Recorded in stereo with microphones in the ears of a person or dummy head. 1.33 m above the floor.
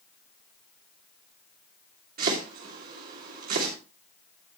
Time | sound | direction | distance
2.2 | chopping | 50° right (ahead or behind) | 3 m